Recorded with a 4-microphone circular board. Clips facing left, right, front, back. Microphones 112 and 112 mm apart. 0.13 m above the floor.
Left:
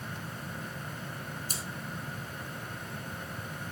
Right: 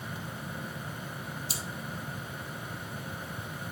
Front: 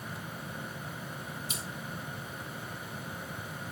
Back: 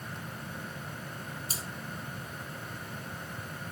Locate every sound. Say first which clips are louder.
1.5 s cutlery clinking: right 1 dB, even; 130° left, 2.5 m